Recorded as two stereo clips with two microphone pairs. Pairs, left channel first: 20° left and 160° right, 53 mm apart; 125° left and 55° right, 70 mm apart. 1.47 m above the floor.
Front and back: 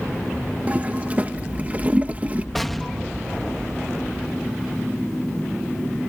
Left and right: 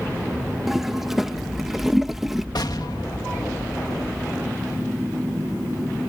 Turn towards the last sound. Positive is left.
turn(degrees=105)